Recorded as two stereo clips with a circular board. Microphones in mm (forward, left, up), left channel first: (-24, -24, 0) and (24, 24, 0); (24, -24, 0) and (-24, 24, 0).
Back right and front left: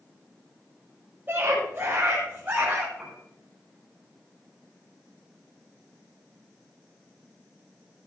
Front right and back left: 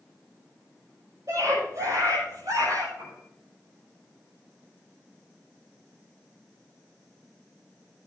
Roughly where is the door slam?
I don't hear a door slam.